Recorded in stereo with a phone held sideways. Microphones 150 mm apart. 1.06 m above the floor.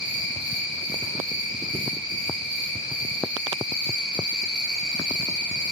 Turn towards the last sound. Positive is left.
turn(degrees=-35)  # may be behind; listen again after turning